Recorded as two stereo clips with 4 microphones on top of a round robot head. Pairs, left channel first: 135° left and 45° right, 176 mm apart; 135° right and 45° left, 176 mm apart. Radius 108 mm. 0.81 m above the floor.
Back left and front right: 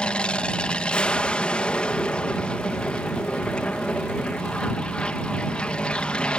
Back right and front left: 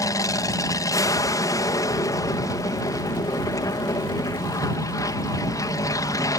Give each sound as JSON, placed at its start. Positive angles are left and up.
{"t": 0.0, "sound": "an aircraft", "azimuth_deg": -150}